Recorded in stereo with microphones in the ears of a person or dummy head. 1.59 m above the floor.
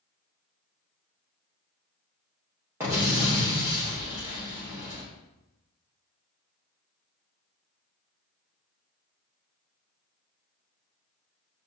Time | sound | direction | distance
2.8 | an explosion | 10° right (ahead or behind) | 1.1 m